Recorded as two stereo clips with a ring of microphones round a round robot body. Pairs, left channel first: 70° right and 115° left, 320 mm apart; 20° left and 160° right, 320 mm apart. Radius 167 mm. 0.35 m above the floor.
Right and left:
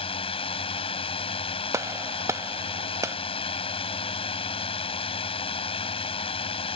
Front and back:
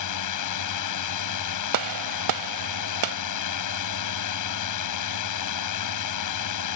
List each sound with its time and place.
0.0 s a drone: 5° left
1.7 s a gunshot: 165° right